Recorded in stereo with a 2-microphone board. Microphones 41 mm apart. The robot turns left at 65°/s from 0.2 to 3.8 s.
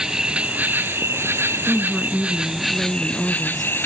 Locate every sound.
0.0 s an insect: 15° right, 1.6 m; by 3.9 s 110° left, 1.6 m
1.7 s a woman speaking: 20° right (ahead or behind), 1.4 m; by 3.7 s 10° left (ahead or behind), 1.4 m